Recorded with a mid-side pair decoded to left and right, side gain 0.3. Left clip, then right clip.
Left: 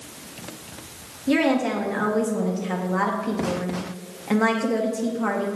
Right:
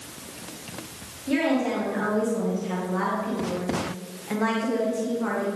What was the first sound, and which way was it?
A woman speaking, 65° left.